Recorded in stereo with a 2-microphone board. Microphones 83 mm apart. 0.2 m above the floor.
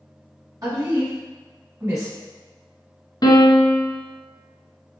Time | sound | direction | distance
0.6 | a woman speaking | 45° right (ahead or behind) | 1.9 m
3.2 | a piano | 55° left (ahead or behind) | 0.7 m